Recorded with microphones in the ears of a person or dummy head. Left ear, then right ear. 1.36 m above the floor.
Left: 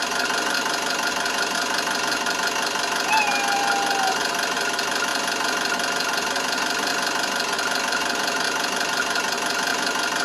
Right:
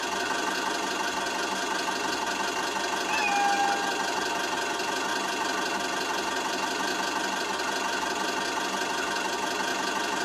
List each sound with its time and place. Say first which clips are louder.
0.0 s an engine running: left 5 dB; 60° left (ahead or behind), 1.0 m
3.0 s a cat meowing: left 4 dB; 15° left (ahead or behind), 1.0 m